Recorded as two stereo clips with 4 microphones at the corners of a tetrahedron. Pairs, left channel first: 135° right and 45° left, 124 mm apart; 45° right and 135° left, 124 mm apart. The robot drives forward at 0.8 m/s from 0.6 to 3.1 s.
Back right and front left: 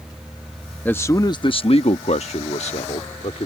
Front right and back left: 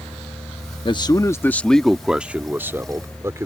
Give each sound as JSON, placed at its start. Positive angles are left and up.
{"t": 0.8, "sound": "a man speaking", "azimuth_deg": -65}